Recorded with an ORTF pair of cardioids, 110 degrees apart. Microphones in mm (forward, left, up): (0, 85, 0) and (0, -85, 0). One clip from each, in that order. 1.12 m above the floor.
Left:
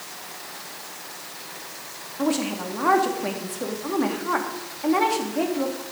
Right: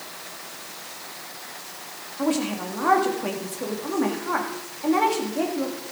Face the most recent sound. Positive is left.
turn(degrees=5)